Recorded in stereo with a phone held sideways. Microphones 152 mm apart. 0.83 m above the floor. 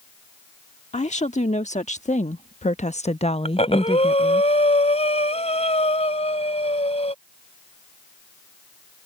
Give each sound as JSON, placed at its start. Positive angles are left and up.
{"t": 0.9, "sound": "a woman speaking", "side_deg": 55}
{"t": 3.5, "sound": "breathing", "side_deg": 50}